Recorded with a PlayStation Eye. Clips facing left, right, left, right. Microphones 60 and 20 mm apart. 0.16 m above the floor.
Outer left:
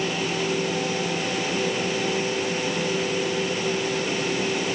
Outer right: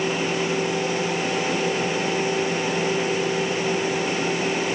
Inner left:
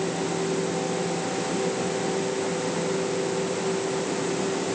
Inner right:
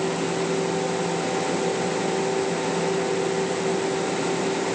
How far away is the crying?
I don't hear crying.